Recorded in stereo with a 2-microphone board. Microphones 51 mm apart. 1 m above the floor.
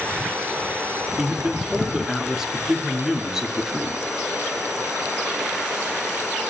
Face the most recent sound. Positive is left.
turn(degrees=-10)  # may be behind; listen again after turning